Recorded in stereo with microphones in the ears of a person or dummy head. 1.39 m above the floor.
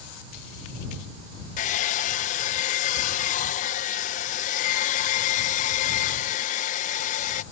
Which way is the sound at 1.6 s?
45° left (ahead or behind).